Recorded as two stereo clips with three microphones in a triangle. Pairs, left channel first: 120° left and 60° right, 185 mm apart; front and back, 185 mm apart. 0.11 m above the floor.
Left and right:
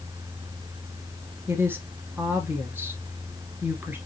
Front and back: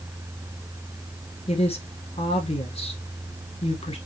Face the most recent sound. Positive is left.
turn(degrees=10)